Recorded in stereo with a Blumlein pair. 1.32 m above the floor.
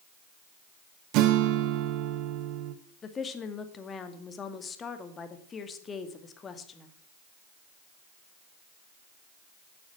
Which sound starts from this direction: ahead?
A woman speaking, at 3.0 s.